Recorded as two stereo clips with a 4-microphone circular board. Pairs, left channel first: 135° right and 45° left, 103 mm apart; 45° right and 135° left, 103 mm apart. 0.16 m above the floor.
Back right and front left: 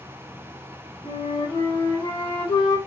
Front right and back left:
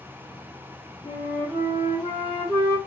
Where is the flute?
100° right, 2 m.